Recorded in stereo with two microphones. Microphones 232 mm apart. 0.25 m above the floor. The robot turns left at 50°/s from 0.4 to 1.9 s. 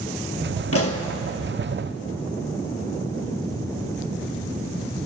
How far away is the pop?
About 1.2 m.